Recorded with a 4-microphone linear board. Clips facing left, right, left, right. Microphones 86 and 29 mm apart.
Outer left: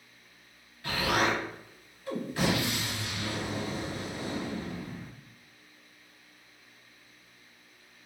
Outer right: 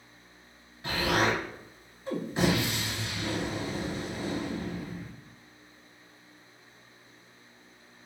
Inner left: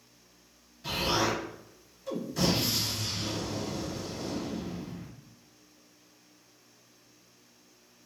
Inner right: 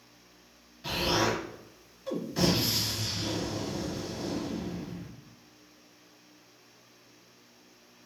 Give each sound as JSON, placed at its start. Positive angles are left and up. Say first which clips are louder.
{"t": 0.8, "sound": "an explosion", "louder": "outer right 1 dB, inner right 1 dB", "side_deg": -25, "distance_m": 1.0}